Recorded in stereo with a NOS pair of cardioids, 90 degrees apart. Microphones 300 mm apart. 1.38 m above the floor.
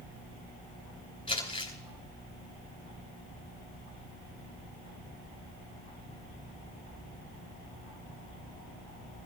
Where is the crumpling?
15° left, 10 m.